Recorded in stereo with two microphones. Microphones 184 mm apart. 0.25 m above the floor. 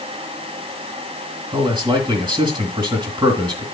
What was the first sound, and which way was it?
A man speaking, 25° right (ahead or behind).